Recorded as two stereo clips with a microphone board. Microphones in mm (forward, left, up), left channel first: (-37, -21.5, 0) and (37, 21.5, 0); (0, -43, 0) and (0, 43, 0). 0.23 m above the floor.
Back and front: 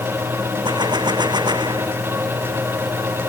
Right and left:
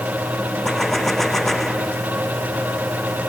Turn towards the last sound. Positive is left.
turn(degrees=-5)